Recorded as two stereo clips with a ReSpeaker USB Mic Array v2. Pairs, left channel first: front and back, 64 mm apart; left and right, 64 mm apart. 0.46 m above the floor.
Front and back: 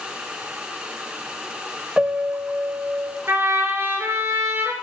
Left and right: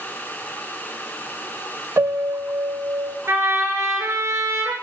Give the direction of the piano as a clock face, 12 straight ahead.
4 o'clock.